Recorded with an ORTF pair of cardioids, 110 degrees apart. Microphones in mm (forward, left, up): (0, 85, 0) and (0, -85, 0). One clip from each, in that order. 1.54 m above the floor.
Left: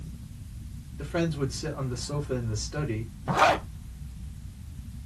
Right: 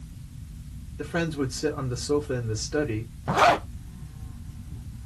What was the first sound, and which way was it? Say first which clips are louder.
A man speaking: right 1 dB; 25° right.